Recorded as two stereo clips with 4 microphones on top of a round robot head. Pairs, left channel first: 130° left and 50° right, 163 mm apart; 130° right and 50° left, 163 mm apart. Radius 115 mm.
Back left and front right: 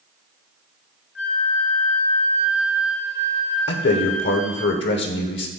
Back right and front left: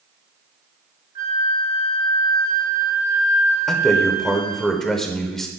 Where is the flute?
115° left, 2.5 m.